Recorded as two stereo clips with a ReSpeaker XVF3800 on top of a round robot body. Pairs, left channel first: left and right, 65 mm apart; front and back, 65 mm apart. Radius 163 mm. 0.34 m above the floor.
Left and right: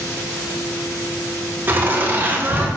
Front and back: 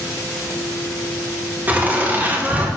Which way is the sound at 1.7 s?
130° right.